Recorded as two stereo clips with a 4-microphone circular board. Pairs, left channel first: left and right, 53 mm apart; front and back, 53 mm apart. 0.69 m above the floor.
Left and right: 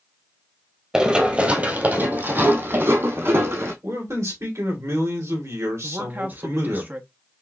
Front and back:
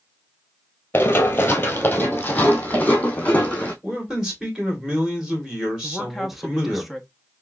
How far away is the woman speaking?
About 0.9 m.